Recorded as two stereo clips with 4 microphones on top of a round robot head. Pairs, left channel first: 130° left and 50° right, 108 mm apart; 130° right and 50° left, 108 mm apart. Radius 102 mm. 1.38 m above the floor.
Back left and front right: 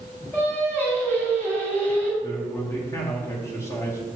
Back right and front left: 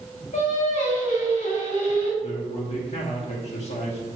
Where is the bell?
I don't hear a bell.